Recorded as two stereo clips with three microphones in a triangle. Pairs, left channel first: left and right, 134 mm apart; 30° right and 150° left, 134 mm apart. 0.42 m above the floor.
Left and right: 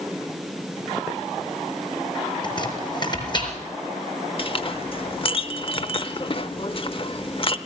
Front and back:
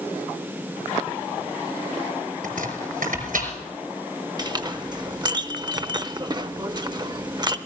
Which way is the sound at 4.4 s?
110° left.